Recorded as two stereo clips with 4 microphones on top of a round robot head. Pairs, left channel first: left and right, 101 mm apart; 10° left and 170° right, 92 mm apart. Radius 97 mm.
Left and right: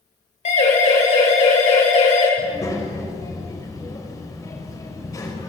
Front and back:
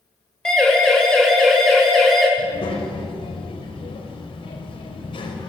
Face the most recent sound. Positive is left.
turn(degrees=35)